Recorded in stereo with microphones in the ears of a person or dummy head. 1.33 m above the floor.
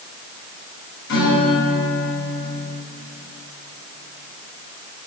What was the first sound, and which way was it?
A guitar, 60° left (ahead or behind).